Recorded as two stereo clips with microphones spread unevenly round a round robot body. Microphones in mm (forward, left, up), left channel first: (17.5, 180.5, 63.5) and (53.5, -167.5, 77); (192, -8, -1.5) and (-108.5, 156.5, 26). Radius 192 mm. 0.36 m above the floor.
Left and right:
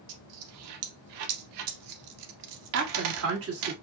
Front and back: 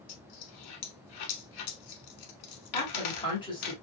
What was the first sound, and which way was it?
A dropped coin, 65° right.